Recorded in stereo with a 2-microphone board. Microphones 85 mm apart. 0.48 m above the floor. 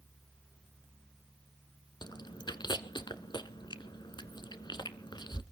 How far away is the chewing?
About 1.0 m.